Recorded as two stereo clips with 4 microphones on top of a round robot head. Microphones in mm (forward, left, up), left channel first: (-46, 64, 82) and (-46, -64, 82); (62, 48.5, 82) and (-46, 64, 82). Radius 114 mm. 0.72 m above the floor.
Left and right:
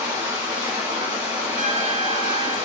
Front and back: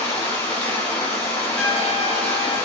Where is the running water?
30° right, 1.5 m.